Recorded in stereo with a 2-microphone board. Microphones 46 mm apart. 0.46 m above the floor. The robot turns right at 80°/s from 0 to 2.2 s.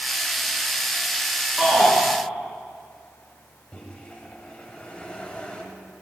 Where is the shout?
10° right (ahead or behind), 4.5 m; by 1.9 s 20° left (ahead or behind), 4.5 m.